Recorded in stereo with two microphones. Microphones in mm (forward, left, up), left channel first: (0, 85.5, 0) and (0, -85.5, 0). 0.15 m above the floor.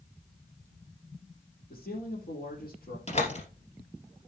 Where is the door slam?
40° left (ahead or behind), 3 m.